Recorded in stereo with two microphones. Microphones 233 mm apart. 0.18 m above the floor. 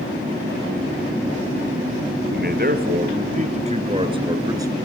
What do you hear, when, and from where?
2.3 s a man speaking: 45° right (ahead or behind), 3.5 m; by 4.8 s 15° right (ahead or behind), 3 m